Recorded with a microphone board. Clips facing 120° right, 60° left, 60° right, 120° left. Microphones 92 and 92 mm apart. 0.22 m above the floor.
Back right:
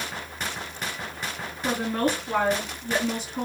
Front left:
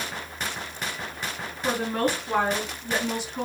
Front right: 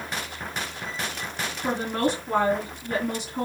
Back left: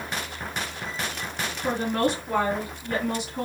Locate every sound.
1.6 s a woman speaking: 10° right, 2 m